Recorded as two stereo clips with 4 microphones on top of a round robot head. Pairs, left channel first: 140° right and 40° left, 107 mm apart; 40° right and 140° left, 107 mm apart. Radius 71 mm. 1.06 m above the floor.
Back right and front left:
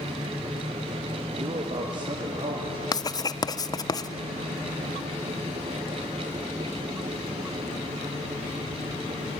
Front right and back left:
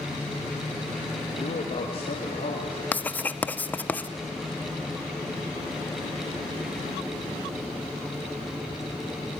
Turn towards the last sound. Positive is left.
turn(degrees=-105)